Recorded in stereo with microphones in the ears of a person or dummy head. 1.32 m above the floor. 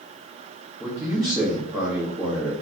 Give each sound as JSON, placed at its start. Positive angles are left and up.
{"t": 0.8, "sound": "a man speaking", "side_deg": -20, "distance_m": 1.6}